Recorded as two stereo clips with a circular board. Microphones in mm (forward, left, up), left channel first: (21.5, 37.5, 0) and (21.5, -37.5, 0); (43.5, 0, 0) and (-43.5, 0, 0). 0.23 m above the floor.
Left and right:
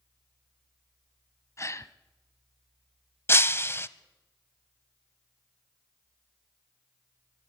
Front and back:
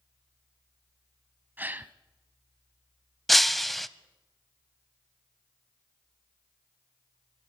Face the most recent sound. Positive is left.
turn(degrees=90)